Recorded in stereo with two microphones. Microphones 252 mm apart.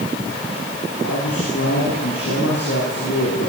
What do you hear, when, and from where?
1.0 s a man speaking: 80° left, 8.5 m